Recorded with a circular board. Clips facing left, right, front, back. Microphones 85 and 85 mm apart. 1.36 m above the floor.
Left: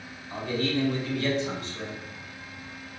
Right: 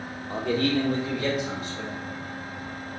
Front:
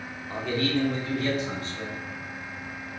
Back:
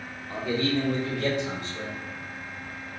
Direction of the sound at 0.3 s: 85° right.